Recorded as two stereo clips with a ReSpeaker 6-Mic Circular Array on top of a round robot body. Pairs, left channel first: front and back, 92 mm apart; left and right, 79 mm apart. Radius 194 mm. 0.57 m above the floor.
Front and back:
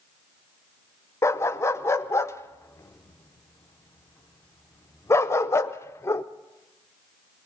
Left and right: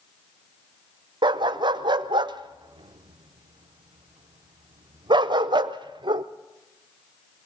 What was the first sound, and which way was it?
A dog barking, 60° right.